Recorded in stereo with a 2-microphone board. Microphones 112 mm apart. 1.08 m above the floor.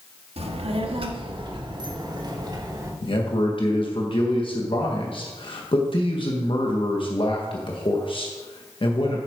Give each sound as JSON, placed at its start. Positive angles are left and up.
{"t": 0.4, "sound": "a child speaking", "side_deg": -65, "distance_m": 1.4}
{"t": 3.0, "sound": "a man speaking", "side_deg": 50, "distance_m": 1.4}